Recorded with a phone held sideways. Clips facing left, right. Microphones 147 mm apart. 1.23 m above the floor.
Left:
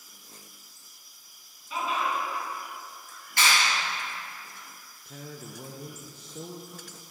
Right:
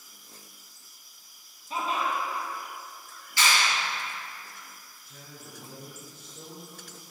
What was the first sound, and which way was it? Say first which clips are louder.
Laughter: even; 35° right (ahead or behind).